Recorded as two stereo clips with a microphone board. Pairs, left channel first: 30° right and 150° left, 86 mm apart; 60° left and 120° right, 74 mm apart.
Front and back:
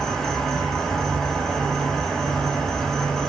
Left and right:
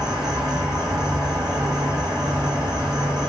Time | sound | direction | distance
0.0 | an insect | 115° right | 1.0 m